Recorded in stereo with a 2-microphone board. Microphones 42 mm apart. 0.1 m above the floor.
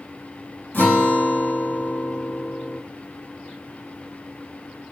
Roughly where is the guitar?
Left.